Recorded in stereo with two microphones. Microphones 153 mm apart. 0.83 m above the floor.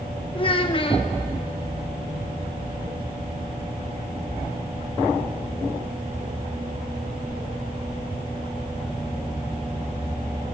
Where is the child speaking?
35° left (ahead or behind), 0.7 m.